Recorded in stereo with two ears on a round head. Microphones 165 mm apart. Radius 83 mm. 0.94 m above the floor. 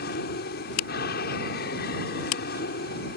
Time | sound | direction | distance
0.0 | an aircraft | 60° left (ahead or behind) | ?